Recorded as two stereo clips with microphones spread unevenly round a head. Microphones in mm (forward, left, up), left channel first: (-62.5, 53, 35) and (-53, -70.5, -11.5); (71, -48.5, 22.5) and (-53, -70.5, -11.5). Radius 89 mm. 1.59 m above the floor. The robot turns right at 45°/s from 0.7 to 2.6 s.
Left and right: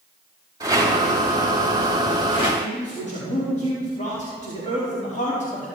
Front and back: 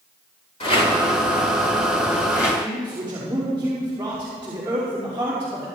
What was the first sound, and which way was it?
A rattle, 5° right.